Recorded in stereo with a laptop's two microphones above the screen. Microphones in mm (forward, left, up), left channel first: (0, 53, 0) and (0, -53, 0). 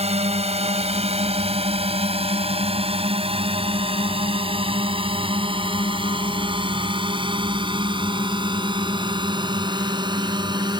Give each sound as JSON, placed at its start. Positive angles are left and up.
{"t": 0.0, "sound": "a drone", "side_deg": -80}